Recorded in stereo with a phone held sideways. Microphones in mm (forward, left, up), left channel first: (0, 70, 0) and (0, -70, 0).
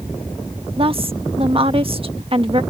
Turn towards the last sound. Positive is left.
turn(degrees=-40)  # may be behind; listen again after turning